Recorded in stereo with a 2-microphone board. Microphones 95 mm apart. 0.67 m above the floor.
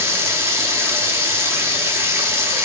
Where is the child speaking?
No child speaking in this recording.